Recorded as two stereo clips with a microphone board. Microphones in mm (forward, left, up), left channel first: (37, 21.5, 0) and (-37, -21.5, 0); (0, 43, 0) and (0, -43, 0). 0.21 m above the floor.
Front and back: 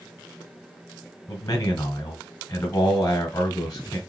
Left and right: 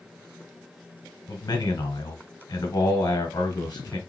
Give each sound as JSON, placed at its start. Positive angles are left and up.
{"t": 1.3, "sound": "a man speaking", "azimuth_deg": 75, "distance_m": 1.8}